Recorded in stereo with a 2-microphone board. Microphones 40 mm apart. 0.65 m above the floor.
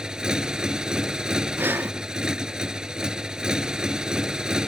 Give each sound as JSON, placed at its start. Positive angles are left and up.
{"t": 0.0, "sound": "a motorcycle", "side_deg": -20}
{"t": 1.6, "sound": "breathing", "side_deg": -55}